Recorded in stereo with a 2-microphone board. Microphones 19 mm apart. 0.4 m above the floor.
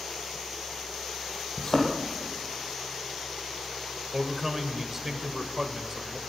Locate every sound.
1.6 s a thud: 35° left (ahead or behind), 3 m
4.1 s a man speaking: 20° right (ahead or behind), 1.3 m